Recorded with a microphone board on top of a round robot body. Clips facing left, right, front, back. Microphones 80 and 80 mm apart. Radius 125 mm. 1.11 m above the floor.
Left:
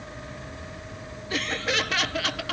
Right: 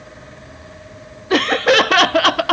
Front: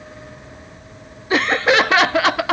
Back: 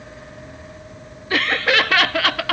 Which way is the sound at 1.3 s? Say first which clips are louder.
Right 14 dB, front 3 dB; 70° right.